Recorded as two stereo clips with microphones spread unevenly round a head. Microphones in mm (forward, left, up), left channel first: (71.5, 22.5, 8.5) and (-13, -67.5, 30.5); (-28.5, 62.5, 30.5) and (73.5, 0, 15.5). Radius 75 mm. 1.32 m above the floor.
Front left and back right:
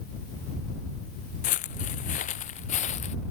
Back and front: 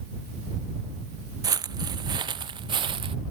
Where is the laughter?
No laughter in this recording.